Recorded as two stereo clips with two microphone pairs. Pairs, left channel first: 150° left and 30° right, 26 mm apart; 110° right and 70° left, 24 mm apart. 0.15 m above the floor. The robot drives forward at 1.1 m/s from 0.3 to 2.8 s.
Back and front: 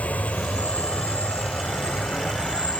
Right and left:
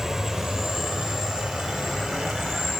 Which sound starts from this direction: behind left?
An insect, at 0.0 s.